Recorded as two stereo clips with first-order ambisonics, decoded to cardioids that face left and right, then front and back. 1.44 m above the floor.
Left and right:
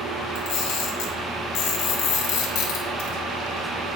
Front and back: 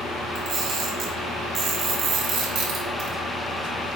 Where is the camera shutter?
130° left, 4.5 m.